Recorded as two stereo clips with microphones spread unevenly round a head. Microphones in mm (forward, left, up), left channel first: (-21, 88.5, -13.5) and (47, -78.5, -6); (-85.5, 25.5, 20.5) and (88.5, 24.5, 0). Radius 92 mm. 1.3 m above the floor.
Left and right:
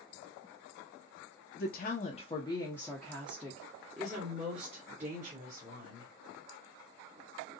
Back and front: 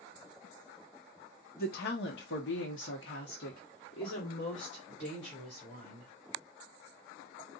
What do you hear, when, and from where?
1.6 s a woman speaking: 145° left, 0.9 m; by 6.1 s 115° right, 2 m